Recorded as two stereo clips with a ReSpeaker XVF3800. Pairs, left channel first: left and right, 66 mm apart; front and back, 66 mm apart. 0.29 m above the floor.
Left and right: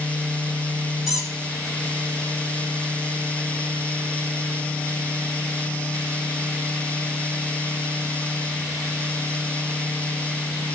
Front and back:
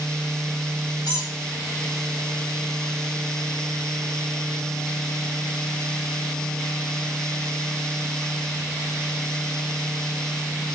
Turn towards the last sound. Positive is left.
turn(degrees=0)